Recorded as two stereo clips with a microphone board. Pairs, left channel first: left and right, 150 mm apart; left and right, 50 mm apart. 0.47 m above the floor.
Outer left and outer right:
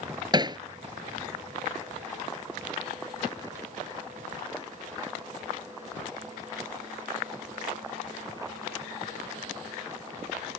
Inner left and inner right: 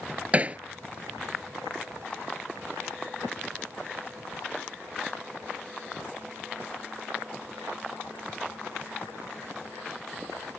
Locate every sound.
0.3 s hammering: 30° right (ahead or behind)